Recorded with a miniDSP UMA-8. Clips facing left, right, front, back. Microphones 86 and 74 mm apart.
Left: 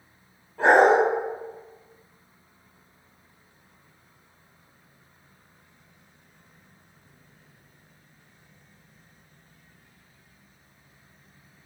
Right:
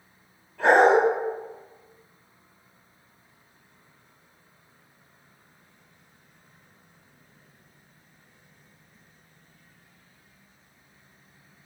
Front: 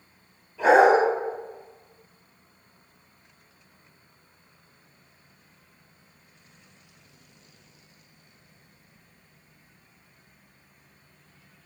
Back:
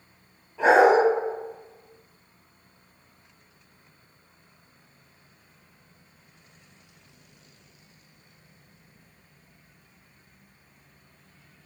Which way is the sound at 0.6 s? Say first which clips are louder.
Even, even; 135° left.